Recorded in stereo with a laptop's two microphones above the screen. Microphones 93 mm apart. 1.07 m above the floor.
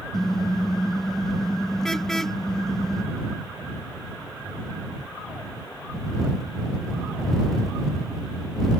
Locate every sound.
0.1 s a car horn: 5° left (ahead or behind)